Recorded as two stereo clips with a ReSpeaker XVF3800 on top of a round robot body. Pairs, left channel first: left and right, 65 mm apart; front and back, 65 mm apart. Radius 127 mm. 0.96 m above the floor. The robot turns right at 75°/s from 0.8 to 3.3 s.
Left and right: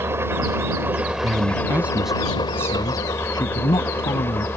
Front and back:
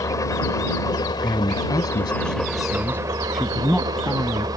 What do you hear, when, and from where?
0.0 s an engine running: 35° right; by 4.6 s 150° left
1.2 s a man speaking: 70° right; by 4.5 s 85° left